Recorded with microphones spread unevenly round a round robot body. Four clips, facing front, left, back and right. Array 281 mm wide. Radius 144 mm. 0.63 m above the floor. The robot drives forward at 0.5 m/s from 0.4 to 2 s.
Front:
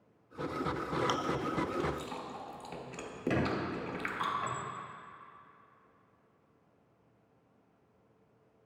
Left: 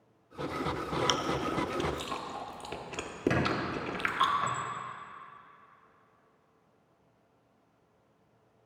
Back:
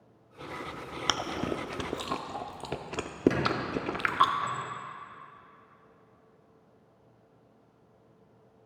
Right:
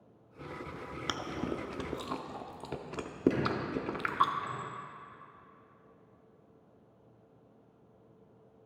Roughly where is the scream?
No scream in this recording.